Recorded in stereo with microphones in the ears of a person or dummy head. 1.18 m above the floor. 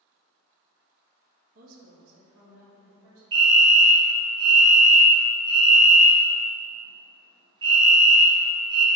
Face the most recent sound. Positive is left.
turn(degrees=-20)  # may be behind; listen again after turning